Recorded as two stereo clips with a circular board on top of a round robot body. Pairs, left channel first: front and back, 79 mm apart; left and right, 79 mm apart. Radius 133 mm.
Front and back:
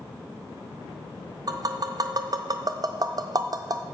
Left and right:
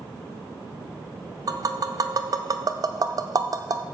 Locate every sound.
1.5 s tapping: 135° right, 0.5 m